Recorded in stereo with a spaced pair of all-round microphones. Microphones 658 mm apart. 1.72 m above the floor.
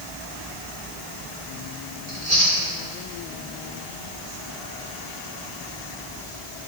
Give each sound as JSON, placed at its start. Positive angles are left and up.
{"t": 2.1, "sound": "chewing", "side_deg": -65, "distance_m": 3.0}